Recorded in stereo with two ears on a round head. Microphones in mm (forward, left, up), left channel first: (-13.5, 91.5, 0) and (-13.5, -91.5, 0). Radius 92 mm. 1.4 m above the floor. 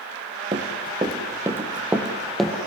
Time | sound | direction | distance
0.5 | running footsteps | 25° right (ahead or behind) | 3 m